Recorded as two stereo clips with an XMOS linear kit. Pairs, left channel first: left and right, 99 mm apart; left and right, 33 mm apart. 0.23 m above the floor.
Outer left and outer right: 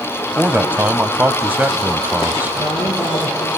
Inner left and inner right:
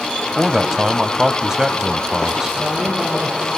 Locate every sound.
0.4 s a man speaking: 20° right (ahead or behind), 1.0 m
2.6 s a woman speaking: 65° left (ahead or behind), 3.5 m